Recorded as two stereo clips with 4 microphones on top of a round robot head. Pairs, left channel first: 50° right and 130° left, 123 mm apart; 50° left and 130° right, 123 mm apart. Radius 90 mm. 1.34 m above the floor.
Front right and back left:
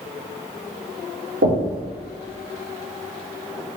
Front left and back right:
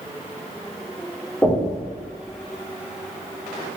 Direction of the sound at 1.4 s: 125° left.